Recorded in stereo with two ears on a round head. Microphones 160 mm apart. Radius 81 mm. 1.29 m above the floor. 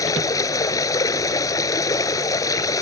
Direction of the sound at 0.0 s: 20° left (ahead or behind).